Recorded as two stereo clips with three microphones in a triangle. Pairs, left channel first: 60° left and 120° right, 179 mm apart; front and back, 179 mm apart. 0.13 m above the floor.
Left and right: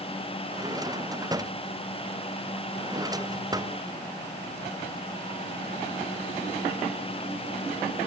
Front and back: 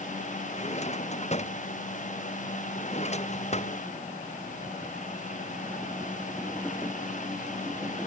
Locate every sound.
0.5 s a drawer: 50° right